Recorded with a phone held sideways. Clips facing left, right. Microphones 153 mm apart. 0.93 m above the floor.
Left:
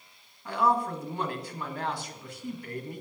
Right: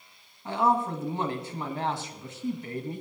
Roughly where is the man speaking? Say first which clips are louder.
Right 1 dB; right.